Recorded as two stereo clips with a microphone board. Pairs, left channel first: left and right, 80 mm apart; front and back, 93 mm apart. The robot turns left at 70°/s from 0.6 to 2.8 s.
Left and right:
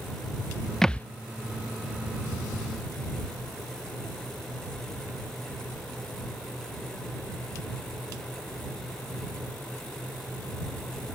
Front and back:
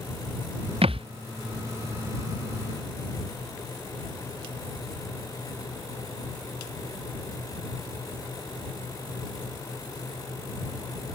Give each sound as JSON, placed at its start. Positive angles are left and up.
{"t": 0.8, "sound": "a thud", "azimuth_deg": 175}